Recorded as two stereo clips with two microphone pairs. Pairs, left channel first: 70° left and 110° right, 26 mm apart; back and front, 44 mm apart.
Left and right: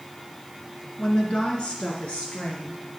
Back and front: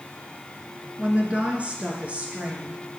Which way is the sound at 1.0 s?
45° left.